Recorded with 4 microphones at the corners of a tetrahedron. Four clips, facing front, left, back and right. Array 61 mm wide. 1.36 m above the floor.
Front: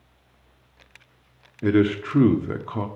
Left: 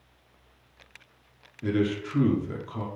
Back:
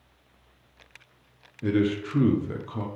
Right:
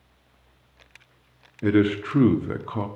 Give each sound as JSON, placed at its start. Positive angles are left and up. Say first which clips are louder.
{"t": 1.6, "sound": "a man speaking", "louder": "right 6 dB, front 5 dB", "azimuth_deg": -50, "distance_m": 0.7}